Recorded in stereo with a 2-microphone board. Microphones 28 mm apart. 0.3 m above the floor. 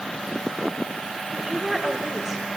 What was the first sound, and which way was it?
A woman speaking, 15° right (ahead or behind).